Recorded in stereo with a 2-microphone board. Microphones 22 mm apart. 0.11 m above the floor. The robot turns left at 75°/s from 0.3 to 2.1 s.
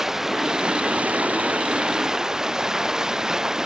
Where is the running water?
15° right; by 3.7 s 150° right.